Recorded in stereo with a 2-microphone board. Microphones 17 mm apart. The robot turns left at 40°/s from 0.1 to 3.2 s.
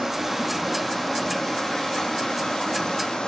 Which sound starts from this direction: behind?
Running water, at 0.0 s.